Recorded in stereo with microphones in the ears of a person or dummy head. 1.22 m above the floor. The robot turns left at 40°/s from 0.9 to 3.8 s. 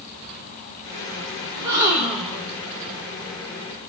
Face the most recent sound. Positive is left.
turn(degrees=120)